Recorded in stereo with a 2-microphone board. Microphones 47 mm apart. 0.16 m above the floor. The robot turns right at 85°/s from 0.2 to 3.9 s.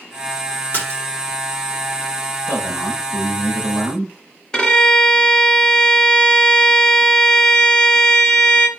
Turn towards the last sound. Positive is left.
turn(degrees=15)  # may be behind; listen again after turning